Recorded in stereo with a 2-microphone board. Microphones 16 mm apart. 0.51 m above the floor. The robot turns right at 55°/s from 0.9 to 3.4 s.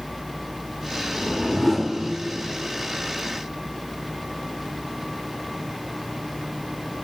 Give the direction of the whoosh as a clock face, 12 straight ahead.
7 o'clock.